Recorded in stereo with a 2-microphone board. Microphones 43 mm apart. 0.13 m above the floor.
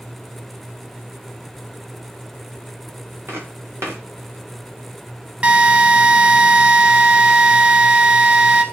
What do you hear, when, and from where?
3.3 s footsteps: 80° right, 3 m
5.4 s a drill: 30° right (ahead or behind), 0.9 m